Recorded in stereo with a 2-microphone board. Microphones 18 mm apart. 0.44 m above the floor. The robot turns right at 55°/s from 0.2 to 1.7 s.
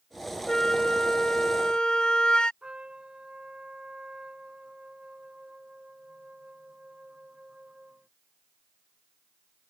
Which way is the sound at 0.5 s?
40° left.